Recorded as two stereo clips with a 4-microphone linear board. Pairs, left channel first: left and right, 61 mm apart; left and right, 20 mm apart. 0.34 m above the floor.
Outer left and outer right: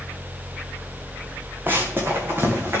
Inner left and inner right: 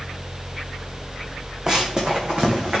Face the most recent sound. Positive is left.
turn(degrees=-45)  # may be behind; listen again after turning